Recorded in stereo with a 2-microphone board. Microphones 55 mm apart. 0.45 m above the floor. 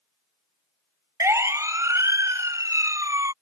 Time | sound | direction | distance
1.2 | a siren | 60° right (ahead or behind) | ?